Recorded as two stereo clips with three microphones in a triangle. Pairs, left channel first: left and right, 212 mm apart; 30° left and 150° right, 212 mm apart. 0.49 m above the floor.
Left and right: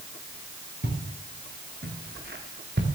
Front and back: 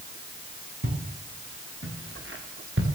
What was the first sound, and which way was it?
Footsteps, 125° right.